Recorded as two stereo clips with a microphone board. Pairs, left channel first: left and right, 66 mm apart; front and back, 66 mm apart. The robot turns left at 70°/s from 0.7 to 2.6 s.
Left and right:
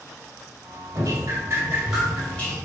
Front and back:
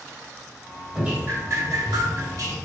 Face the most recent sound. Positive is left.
turn(degrees=145)